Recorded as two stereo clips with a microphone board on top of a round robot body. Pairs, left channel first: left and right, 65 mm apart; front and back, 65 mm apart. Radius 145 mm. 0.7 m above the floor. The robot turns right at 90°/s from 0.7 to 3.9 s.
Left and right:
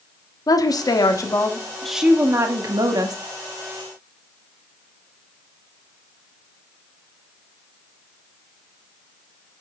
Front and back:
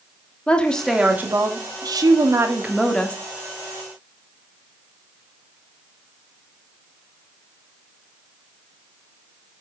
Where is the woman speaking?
75° left, 1.9 m; by 3.2 s 65° right, 1.9 m.